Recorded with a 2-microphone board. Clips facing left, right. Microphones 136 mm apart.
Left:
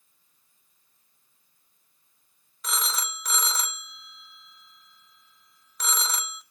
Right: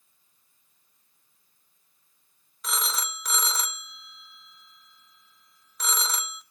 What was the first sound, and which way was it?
A phone ringing, centre (ahead or behind).